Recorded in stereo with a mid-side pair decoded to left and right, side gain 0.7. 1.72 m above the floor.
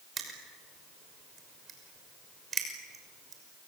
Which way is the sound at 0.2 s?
35° right.